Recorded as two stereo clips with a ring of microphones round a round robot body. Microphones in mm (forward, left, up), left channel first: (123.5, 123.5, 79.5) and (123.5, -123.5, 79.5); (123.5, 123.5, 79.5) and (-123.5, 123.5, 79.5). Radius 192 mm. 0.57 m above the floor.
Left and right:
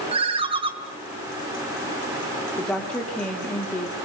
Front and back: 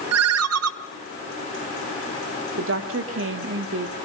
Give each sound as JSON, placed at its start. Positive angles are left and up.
{"t": 0.1, "sound": "a ringtone", "azimuth_deg": -160, "distance_m": 0.8}
{"t": 2.6, "sound": "a woman speaking", "azimuth_deg": 175, "distance_m": 1.6}